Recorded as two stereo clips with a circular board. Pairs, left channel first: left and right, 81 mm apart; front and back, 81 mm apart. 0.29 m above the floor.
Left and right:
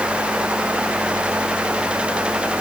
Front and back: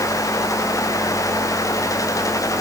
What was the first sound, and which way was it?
Only background noise.